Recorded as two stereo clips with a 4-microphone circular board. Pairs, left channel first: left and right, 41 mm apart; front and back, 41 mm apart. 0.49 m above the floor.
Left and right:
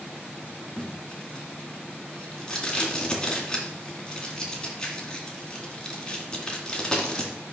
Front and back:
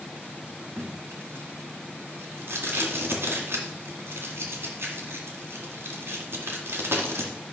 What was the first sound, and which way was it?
Tape being pulled, 165° left.